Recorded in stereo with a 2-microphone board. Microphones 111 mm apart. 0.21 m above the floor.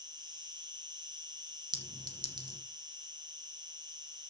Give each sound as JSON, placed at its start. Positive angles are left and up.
{"t": 0.0, "sound": "an insect", "side_deg": -40, "distance_m": 2.5}
{"t": 1.7, "sound": "a clink", "side_deg": -40, "distance_m": 2.0}